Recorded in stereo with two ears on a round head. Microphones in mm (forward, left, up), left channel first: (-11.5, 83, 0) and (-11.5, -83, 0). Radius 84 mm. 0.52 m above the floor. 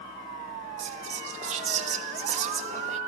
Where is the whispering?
40° right (ahead or behind), 1.6 m.